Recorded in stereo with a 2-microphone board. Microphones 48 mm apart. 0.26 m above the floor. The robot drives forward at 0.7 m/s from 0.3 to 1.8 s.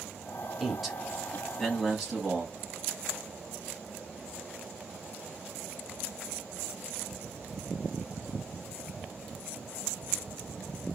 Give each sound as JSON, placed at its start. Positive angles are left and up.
{"t": 0.6, "sound": "a man speaking", "side_deg": 0, "distance_m": 1.2}